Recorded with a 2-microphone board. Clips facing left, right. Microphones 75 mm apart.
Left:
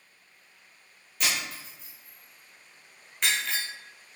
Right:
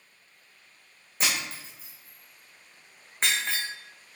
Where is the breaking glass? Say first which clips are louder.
Right 1 dB; 35° right (ahead or behind), 2.5 m.